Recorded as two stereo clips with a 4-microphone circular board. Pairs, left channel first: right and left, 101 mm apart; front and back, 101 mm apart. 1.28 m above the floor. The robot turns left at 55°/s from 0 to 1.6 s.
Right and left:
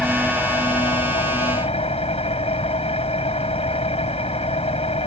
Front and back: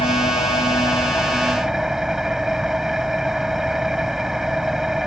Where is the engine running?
5° right; by 5.1 s 95° right.